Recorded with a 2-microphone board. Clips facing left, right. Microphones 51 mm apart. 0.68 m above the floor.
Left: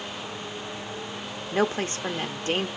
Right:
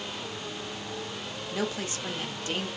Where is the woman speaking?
40° left (ahead or behind), 0.7 m.